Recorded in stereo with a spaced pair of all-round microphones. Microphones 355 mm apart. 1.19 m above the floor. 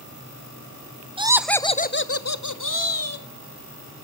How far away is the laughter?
About 0.7 m.